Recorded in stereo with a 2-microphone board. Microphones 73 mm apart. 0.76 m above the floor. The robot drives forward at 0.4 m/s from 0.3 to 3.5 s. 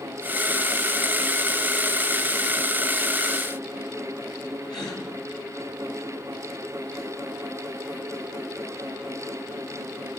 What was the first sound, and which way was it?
A gasp, 85° left.